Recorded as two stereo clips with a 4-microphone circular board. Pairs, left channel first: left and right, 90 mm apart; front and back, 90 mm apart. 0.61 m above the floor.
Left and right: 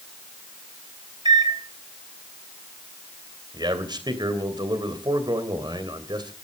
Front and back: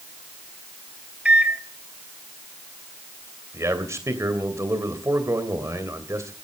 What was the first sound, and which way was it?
A microwave, 105° right.